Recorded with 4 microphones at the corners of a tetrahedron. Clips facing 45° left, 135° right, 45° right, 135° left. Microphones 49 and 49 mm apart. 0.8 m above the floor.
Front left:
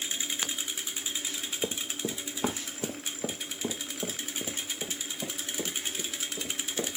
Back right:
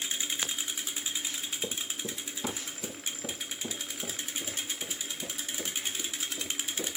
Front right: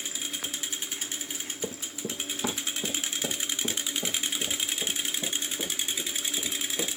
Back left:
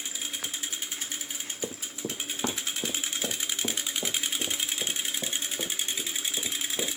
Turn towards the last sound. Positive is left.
turn(degrees=80)